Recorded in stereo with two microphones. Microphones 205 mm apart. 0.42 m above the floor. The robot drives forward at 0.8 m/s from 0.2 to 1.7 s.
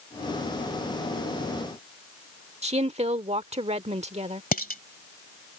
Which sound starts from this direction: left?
Dishes clattering, at 4.5 s.